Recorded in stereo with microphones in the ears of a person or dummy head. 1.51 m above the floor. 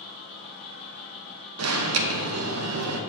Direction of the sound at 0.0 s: 5° left (ahead or behind).